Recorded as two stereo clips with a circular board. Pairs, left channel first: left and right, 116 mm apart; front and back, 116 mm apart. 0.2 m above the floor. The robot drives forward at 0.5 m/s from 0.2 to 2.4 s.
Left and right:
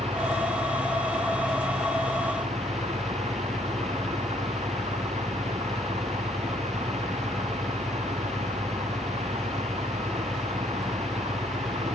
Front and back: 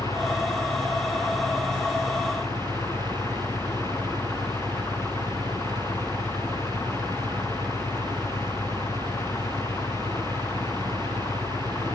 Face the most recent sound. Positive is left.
turn(degrees=-70)